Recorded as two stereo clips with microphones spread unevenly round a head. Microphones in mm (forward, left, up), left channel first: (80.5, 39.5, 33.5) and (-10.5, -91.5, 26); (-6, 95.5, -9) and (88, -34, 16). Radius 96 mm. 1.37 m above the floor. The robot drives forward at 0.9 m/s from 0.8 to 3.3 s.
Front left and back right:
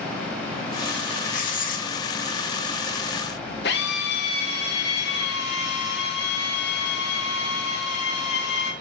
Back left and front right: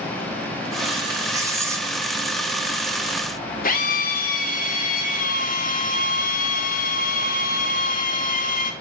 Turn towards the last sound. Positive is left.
turn(degrees=95)